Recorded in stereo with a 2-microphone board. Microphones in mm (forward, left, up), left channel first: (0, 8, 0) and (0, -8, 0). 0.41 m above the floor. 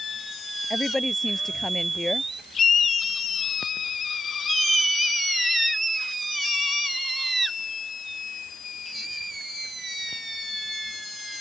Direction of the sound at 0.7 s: 20° left (ahead or behind).